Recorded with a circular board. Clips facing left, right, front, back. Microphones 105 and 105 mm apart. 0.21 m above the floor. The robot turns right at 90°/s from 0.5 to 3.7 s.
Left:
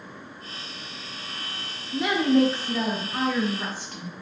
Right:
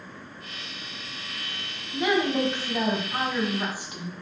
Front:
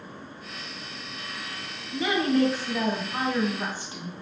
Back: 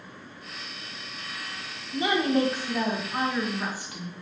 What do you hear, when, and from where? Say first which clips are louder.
1.9 s a woman speaking: left 3 dB, even; 175° left, 1.0 m; by 4.1 s 25° right, 1.0 m